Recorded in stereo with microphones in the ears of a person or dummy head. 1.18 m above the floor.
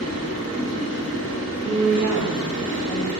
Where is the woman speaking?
5° right (ahead or behind), 1.5 m.